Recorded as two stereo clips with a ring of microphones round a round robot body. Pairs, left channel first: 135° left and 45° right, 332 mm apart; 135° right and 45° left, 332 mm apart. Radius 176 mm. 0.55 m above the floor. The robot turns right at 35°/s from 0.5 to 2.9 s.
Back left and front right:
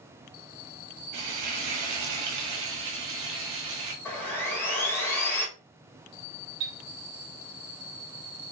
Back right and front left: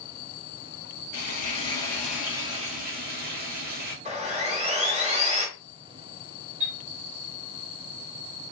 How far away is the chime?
About 1.1 m.